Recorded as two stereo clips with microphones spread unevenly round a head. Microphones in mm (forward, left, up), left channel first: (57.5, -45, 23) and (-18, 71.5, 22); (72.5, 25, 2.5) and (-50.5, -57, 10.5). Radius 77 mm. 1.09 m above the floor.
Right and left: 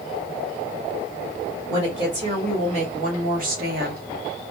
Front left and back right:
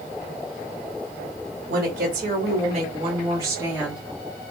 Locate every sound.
1.7 s a woman speaking: 175° right, 1.4 m; by 4.0 s 125° left, 1.1 m